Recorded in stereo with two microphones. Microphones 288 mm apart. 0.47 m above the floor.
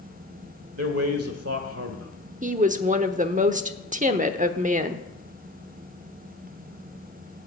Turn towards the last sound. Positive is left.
turn(degrees=-25)  # may be behind; listen again after turning